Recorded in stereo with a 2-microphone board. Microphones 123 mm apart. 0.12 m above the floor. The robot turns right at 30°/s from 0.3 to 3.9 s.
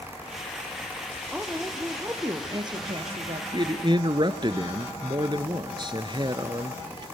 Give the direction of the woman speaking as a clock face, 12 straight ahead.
6 o'clock.